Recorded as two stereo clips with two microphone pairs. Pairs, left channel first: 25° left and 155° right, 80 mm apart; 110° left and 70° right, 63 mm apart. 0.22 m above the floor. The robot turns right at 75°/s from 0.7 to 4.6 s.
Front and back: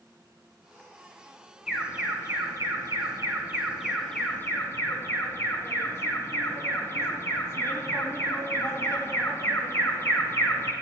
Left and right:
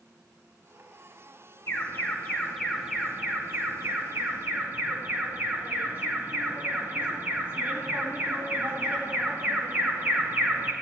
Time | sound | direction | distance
1.7 | an alarm | 120° left | 1.9 m